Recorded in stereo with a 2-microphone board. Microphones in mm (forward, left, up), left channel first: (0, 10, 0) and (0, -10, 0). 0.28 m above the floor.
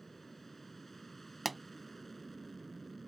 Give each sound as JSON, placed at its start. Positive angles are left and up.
{"t": 0.0, "sound": "an aircraft", "side_deg": 10}
{"t": 1.4, "sound": "a pop", "side_deg": 0}